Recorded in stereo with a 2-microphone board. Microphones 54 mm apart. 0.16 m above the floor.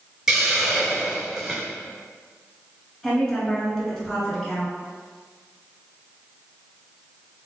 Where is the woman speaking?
5° left (ahead or behind), 1.9 m.